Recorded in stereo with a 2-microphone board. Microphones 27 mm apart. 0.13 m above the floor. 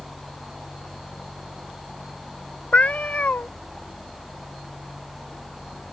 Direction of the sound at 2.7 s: 55° left (ahead or behind).